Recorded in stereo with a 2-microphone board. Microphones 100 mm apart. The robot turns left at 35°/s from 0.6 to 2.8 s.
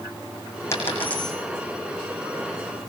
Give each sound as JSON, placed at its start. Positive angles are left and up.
{"t": 0.7, "sound": "a dropped coin", "side_deg": 30, "distance_m": 6.5}